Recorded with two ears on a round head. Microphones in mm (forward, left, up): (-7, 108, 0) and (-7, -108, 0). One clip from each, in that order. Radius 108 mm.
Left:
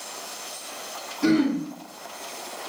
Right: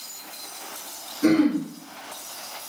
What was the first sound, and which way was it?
Throat clearing, 45° left (ahead or behind).